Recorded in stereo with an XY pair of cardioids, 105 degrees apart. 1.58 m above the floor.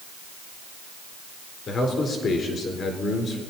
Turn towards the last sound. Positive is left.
turn(degrees=50)